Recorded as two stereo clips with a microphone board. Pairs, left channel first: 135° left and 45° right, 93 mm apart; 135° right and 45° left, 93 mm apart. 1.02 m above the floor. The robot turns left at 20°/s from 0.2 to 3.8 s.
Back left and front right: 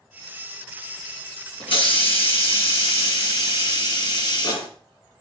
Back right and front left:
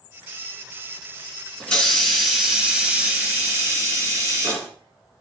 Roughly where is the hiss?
Behind left.